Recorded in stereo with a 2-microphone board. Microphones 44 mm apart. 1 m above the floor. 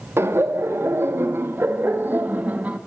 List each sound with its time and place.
0.2 s laughter: 75° right (ahead or behind), 2 m; by 2.8 s 35° right (ahead or behind), 1.9 m